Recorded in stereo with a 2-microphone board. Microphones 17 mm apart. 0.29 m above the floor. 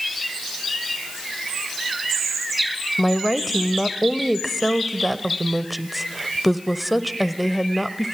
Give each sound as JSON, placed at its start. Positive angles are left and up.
{"t": 3.0, "sound": "a woman speaking", "side_deg": -5, "distance_m": 0.9}